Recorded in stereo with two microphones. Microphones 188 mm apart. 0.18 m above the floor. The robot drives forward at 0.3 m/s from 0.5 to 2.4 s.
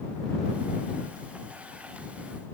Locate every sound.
Only background noise.